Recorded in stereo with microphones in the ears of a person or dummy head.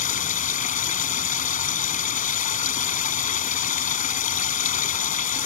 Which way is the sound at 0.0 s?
35° left (ahead or behind).